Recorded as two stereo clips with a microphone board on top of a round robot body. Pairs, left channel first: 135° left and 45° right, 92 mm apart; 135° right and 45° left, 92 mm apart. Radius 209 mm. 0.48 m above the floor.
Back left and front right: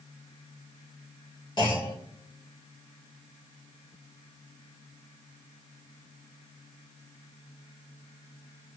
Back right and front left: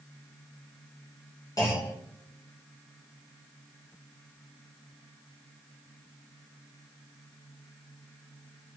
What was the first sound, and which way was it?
A clunk, 170° left.